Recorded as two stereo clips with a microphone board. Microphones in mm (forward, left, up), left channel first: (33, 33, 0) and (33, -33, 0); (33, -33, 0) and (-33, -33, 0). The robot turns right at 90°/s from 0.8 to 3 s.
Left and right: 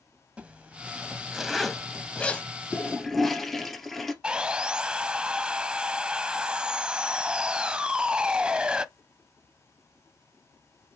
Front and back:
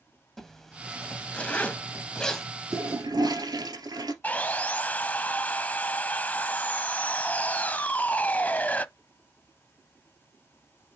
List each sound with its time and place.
0.4 s a zipper: 75° right, 1.2 m; by 2.5 s 75° left, 1.2 m
2.7 s a toilet flushing: 155° left, 2 m; by 4.1 s straight behind, 2 m
4.2 s sawing: 30° right, 0.7 m